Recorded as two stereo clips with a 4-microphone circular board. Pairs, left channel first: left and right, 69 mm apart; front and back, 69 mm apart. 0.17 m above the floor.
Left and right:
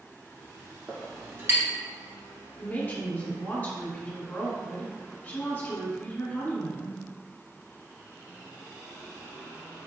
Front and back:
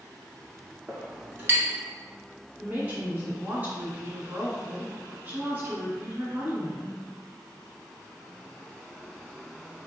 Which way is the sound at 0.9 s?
130° right.